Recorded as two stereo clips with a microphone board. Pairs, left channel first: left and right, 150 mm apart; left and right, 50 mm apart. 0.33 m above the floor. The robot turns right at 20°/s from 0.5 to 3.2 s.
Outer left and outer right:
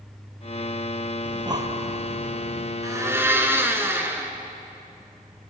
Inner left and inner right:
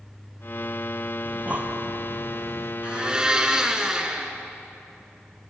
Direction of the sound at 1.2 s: 30° right (ahead or behind).